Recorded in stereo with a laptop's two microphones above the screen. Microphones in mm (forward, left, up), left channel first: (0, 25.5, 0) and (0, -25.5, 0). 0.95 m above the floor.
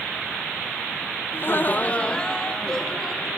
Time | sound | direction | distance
1.3 | laughter | 45° left (ahead or behind) | 0.7 m